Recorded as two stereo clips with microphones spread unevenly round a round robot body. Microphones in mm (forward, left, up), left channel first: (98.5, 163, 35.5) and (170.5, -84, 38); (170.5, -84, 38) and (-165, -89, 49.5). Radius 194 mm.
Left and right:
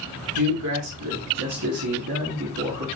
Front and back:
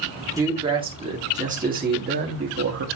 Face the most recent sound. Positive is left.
turn(degrees=-135)